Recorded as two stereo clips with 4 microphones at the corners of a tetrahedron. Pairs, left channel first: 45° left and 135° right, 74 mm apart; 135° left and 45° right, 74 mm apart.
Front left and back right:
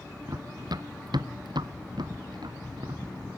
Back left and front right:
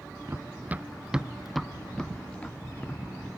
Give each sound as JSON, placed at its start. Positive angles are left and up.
{"t": 0.3, "sound": "running footsteps", "azimuth_deg": -105}